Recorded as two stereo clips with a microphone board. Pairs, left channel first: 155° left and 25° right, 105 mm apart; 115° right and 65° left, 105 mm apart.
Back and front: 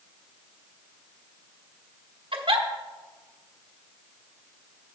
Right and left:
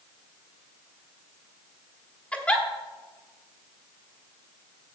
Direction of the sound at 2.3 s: 35° right.